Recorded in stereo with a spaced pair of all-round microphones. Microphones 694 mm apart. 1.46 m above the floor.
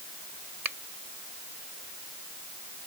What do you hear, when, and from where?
0.6 s a finger snap: 70° right (ahead or behind)